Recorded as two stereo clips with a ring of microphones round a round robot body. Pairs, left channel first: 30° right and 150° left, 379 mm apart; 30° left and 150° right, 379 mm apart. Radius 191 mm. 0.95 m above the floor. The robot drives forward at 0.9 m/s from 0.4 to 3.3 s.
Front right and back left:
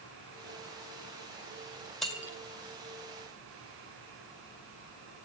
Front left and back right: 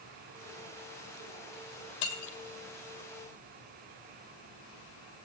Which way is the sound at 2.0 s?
60° left.